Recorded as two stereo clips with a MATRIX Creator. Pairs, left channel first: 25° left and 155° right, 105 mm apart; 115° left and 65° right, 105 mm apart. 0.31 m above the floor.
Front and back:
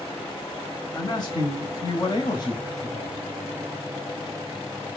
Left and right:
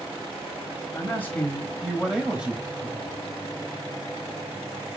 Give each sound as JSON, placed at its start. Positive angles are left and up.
{"t": 0.9, "sound": "a man speaking", "azimuth_deg": 55, "distance_m": 1.3}